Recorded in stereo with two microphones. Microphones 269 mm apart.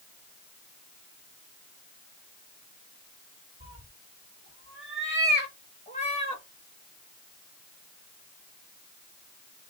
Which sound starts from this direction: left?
A cat meowing, at 3.6 s.